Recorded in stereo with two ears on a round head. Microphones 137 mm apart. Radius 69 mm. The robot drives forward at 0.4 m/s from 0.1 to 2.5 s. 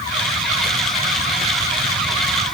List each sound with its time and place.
Only background noise.